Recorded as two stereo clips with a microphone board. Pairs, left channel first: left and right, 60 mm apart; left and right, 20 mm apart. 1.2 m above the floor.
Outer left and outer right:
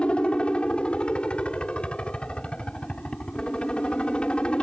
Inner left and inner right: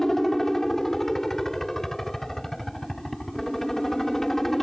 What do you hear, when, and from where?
0.0 s a helicopter: 20° left (ahead or behind)